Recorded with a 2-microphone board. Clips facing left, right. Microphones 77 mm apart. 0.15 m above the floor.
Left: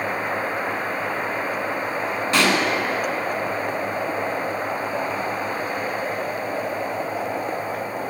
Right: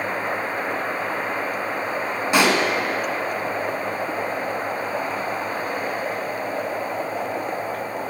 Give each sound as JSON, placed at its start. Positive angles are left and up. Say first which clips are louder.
{"t": 2.3, "sound": "a pop", "louder": "right 2 dB", "side_deg": -15, "distance_m": 0.9}